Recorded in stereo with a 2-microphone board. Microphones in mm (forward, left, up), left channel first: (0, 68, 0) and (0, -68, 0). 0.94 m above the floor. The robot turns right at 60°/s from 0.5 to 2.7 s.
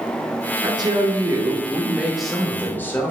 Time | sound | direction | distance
0.6 | a woman speaking | 95° right | 0.6 m